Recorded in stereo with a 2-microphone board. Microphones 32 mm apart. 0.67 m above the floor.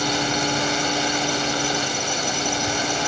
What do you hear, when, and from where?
0.0 s a drone: centre (ahead or behind)